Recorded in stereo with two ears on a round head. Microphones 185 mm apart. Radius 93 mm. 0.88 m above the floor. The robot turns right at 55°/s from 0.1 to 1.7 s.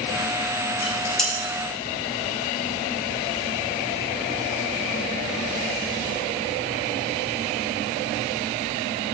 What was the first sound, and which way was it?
Dishes clattering, 25° left (ahead or behind).